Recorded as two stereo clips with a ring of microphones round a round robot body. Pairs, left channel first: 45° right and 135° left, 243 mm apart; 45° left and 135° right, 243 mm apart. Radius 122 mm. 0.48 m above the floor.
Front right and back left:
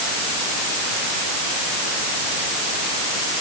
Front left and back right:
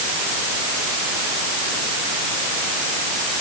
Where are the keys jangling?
No keys jangling in this recording.